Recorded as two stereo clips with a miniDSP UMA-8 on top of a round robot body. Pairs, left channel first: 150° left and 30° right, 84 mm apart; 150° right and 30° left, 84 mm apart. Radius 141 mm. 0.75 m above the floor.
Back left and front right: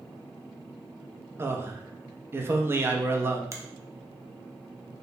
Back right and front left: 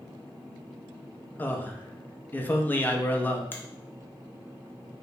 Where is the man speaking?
85° right, 0.7 m.